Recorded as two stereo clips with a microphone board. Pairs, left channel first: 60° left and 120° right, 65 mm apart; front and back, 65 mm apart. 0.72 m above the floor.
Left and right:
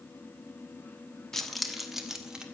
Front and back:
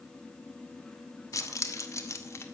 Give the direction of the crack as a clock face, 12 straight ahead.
No crack in this recording.